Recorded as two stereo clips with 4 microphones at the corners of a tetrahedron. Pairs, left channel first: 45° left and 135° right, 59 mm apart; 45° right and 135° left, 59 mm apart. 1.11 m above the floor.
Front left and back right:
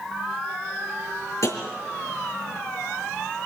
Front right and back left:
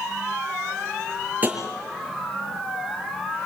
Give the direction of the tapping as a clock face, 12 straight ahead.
10 o'clock.